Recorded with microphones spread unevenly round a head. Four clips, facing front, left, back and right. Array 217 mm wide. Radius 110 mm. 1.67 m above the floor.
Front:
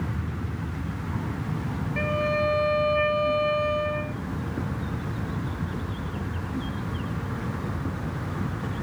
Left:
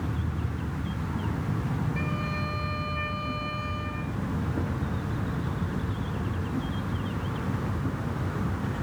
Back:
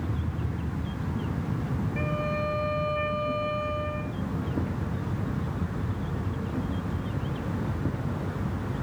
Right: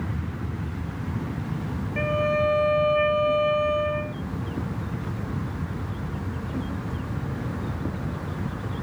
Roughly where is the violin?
Ahead right.